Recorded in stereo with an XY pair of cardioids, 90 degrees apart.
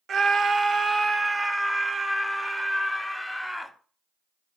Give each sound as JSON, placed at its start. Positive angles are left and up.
{"t": 0.1, "sound": "a scream", "azimuth_deg": -60, "distance_m": 0.8}